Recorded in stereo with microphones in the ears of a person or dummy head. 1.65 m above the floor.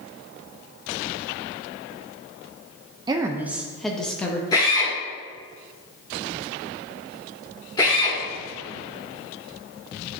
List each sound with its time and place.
3.1 s a woman speaking: 25° right (ahead or behind), 0.6 m; by 4.4 s 10° left (ahead or behind), 1.2 m
4.5 s a drill: 25° left (ahead or behind), 2.5 m